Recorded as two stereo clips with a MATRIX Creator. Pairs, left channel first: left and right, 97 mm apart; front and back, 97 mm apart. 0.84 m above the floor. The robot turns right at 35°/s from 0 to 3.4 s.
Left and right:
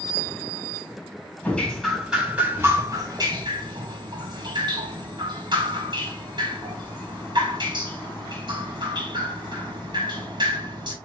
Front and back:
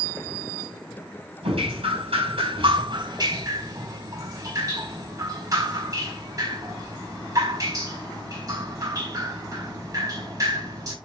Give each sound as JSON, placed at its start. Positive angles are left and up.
{"t": 1.4, "sound": "dripping", "azimuth_deg": 160, "distance_m": 4.5}